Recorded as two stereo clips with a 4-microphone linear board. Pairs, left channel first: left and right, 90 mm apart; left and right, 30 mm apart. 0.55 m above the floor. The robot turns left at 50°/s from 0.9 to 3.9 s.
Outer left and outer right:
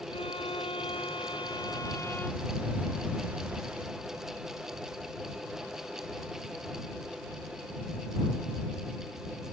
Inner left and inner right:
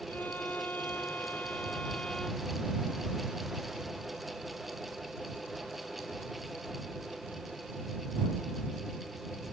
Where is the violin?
90° left; by 2.5 s 5° left.